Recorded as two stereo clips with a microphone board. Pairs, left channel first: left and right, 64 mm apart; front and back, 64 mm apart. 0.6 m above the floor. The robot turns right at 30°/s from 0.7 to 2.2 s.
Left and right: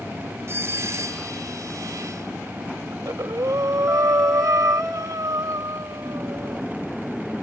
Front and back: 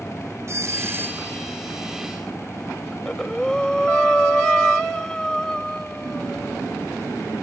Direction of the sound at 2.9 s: 80° right.